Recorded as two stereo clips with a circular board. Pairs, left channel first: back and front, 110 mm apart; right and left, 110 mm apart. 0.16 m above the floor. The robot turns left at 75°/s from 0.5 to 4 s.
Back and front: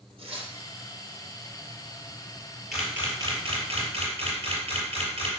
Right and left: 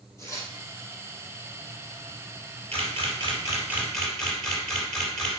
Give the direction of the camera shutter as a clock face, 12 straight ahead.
9 o'clock.